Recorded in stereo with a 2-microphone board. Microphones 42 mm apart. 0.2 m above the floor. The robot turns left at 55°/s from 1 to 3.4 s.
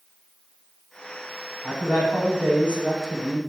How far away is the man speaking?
About 1.1 m.